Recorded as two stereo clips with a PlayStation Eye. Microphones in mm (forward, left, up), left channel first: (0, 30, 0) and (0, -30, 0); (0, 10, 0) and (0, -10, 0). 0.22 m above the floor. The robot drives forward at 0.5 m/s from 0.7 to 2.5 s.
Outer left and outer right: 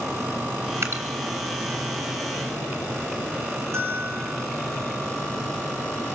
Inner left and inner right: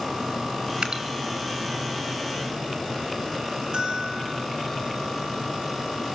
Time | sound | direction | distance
0.8 | dripping | 55° right (ahead or behind) | 4.5 m
3.7 | a bell | 55° right (ahead or behind) | 8 m